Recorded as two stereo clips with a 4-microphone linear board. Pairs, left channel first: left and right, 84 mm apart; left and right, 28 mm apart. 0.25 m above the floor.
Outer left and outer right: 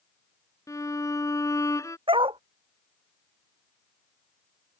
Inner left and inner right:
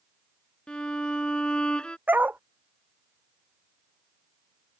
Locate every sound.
0.7 s a violin: 35° left (ahead or behind)
2.1 s a dog barking: 80° right